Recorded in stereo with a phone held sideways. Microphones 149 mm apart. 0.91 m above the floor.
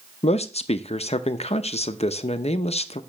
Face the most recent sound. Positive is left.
turn(degrees=45)  # may be behind; listen again after turning